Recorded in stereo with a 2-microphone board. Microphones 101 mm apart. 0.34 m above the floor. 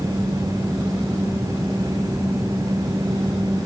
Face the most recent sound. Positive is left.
No sound to turn to.